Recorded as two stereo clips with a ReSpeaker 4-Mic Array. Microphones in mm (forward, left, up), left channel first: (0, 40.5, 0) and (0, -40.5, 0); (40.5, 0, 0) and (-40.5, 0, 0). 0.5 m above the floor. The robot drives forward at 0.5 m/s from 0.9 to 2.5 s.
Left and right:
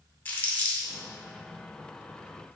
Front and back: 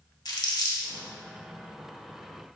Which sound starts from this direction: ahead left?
Crumpling, at 0.2 s.